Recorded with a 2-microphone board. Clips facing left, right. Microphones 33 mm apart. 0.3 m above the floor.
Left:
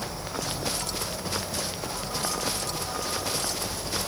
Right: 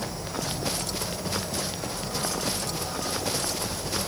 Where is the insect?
25° left (ahead or behind), 1.7 m.